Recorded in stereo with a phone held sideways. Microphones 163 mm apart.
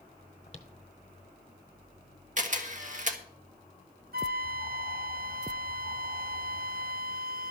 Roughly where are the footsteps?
Left.